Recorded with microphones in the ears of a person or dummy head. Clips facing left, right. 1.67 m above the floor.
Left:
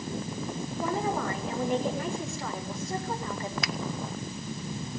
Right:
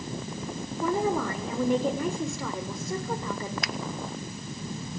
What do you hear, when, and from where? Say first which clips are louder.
0.8 s a woman speaking: right 4 dB; 85° right, 7 m
3.6 s a finger snap: left 1 dB; 70° left (ahead or behind), 0.8 m